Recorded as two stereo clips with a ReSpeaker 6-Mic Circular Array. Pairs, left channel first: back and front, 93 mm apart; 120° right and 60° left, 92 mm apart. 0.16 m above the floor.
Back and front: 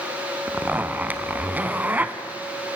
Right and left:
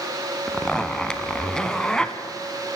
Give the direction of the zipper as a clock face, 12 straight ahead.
2 o'clock.